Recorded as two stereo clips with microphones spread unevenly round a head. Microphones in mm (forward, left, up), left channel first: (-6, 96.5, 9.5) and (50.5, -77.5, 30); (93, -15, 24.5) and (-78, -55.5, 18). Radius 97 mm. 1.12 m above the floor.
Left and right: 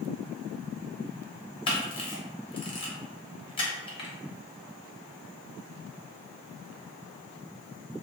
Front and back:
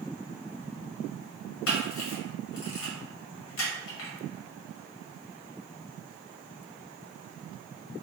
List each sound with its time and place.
1.7 s a camera shutter: 40° left, 0.7 m